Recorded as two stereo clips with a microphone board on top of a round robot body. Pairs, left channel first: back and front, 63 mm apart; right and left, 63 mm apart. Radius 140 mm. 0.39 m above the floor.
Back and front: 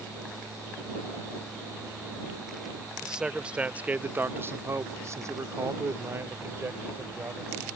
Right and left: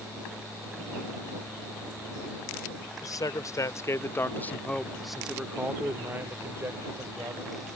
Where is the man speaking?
80° right; by 7.7 s 60° left.